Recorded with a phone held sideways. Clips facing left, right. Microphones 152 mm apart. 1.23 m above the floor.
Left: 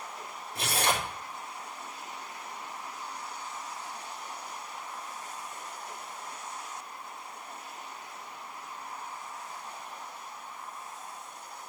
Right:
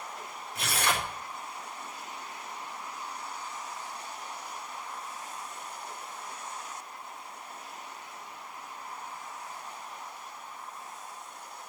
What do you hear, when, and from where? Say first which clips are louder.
0.6 s tearing paper: left 1 dB; 30° left (ahead or behind), 3 m